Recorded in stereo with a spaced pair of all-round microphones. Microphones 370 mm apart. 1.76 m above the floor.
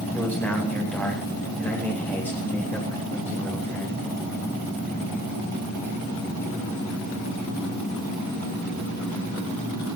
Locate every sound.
0.1 s a man speaking: 5° left (ahead or behind), 9 m